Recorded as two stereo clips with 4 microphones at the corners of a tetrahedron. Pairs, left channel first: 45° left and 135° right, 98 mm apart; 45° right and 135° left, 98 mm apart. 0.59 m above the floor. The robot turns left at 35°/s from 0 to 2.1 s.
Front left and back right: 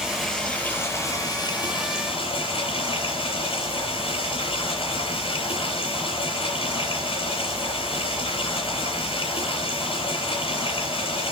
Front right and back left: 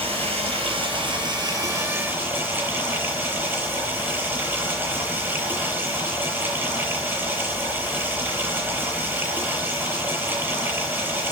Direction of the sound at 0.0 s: 140° left.